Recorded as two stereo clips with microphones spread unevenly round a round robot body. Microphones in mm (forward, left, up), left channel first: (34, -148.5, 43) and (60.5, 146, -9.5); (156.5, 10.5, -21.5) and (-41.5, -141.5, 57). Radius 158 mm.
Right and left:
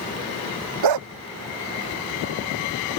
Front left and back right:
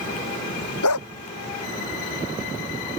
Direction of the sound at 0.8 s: 85° left.